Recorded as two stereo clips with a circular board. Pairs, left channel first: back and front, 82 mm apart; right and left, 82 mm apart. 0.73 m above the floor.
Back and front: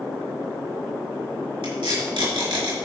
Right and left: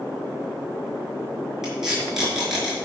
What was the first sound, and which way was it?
Tape being pulled, 5° left.